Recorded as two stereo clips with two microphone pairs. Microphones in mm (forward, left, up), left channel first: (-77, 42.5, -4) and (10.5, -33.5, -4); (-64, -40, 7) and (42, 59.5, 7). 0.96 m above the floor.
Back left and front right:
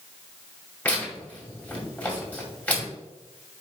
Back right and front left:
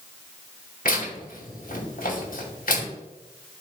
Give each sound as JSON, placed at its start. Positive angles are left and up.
{"t": 0.8, "sound": "tearing paper", "azimuth_deg": -145, "distance_m": 2.0}